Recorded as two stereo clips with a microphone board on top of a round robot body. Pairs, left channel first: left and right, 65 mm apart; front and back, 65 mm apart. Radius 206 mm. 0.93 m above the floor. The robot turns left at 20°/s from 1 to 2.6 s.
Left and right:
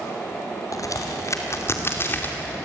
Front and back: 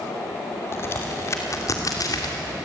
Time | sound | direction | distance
0.7 | a crack | 55° left | 2.5 m